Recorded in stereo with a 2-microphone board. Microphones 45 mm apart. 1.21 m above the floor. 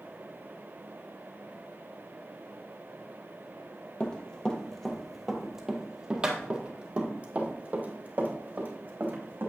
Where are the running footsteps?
25° left (ahead or behind), 1.4 m; by 9.5 s 50° right (ahead or behind), 3 m.